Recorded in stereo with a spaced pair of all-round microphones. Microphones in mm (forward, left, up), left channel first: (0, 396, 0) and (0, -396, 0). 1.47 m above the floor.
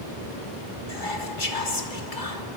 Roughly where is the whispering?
Left.